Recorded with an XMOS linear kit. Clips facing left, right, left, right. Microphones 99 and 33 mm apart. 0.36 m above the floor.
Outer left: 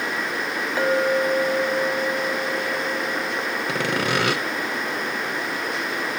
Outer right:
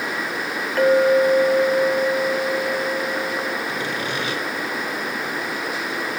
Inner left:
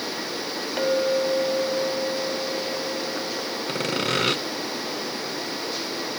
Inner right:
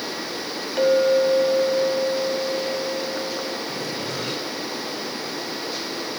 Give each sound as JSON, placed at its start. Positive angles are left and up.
{"t": 0.8, "sound": "a clink", "side_deg": 10, "distance_m": 1.7}
{"t": 3.7, "sound": "sawing", "side_deg": 75, "distance_m": 0.8}